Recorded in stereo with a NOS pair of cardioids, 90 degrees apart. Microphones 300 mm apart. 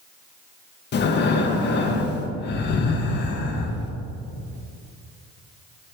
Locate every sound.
0.9 s breathing: 35° left, 0.5 m